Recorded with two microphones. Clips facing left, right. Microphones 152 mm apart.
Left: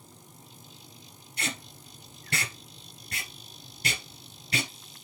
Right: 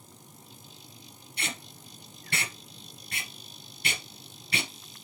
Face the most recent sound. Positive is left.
turn(degrees=40)  # may be behind; listen again after turning